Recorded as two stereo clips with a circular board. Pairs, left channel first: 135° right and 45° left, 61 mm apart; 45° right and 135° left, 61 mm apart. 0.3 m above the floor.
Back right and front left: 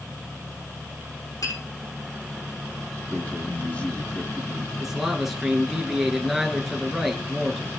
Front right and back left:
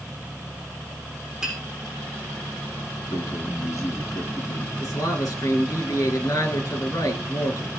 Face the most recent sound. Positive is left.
turn(degrees=-40)